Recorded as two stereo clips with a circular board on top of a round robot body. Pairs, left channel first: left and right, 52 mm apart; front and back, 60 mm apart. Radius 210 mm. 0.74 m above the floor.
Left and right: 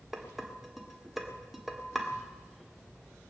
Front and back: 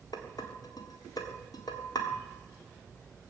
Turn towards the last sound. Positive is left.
turn(degrees=-5)